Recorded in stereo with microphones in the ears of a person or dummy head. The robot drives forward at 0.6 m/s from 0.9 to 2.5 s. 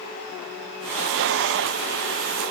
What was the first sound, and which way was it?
Only background noise.